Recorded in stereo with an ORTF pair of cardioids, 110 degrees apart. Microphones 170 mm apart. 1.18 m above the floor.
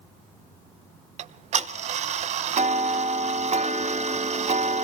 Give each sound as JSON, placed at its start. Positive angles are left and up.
{"t": 1.2, "sound": "ticking", "azimuth_deg": -45, "distance_m": 0.7}